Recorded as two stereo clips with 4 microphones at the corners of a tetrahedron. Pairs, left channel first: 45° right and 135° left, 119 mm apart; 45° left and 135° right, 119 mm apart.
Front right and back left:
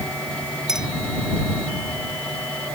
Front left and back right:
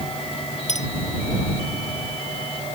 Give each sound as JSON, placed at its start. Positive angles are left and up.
{"t": 0.7, "sound": "a clink", "azimuth_deg": 50}